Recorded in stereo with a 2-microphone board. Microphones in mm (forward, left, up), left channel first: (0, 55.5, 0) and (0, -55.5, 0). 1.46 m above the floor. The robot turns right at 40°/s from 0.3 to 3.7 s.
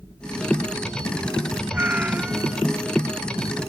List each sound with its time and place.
1.7 s a cat meowing: 15° right (ahead or behind); by 2.6 s 5° right (ahead or behind)